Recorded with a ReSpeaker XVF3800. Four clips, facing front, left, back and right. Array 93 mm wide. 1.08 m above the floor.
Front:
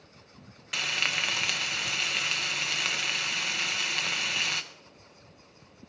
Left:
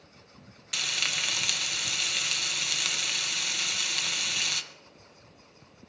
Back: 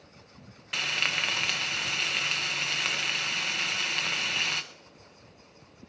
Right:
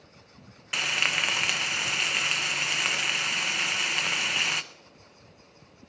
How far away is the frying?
About 0.6 m.